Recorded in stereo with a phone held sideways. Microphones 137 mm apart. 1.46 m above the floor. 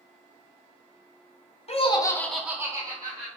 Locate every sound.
1.7 s laughter: 50° left (ahead or behind), 0.7 m; by 3.3 s 40° right (ahead or behind), 1.1 m